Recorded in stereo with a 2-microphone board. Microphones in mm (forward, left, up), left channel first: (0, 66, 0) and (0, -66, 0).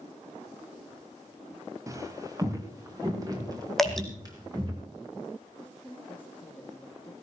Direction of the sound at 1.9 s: 25° right (ahead or behind).